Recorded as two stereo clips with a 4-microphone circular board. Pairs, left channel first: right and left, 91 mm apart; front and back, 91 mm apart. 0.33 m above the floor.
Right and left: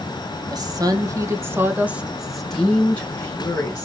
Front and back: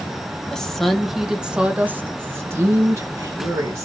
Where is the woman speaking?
80° left, 1.3 m; by 3.9 s 140° right, 1.4 m.